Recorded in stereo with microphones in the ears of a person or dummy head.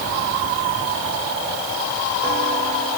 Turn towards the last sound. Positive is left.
No sound to turn to.